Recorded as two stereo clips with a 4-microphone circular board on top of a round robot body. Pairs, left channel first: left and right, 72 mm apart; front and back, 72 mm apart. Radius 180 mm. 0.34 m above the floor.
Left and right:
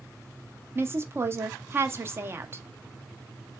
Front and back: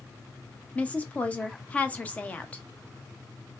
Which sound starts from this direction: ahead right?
A woman speaking, at 0.8 s.